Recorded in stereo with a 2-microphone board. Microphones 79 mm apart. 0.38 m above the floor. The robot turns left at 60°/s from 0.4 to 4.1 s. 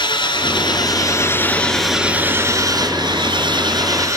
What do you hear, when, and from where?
0.0 s an engine running: 85° left, 3 m; by 4.2 s 135° right, 3 m